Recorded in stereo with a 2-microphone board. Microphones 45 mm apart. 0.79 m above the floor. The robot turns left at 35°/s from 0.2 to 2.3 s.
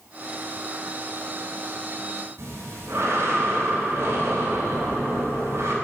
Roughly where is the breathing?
Right.